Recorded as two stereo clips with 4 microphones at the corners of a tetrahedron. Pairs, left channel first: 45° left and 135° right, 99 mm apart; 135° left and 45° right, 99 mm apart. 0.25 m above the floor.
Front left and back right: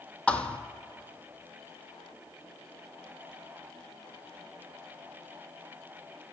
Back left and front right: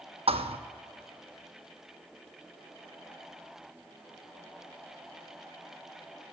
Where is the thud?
35° right, 0.6 m.